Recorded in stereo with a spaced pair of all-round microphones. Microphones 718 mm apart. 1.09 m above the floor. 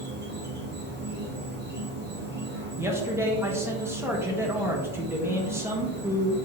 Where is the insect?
15° right (ahead or behind), 1.1 m.